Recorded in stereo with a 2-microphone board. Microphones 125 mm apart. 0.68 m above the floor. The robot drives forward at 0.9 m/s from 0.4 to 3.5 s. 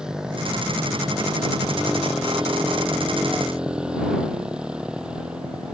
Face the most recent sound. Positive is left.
turn(degrees=-10)  # may be behind; listen again after turning